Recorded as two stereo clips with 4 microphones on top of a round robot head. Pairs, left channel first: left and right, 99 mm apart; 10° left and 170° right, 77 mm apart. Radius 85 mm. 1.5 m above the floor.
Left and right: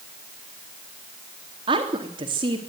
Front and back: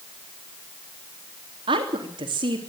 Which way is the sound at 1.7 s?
140° right.